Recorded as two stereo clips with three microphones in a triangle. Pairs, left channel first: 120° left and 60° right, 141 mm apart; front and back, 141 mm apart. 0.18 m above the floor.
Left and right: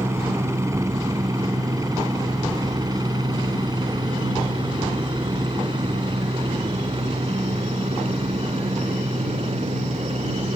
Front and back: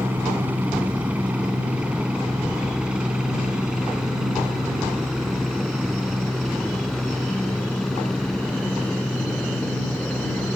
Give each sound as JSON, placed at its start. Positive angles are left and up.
{"t": 0.0, "sound": "a helicopter", "azimuth_deg": -115}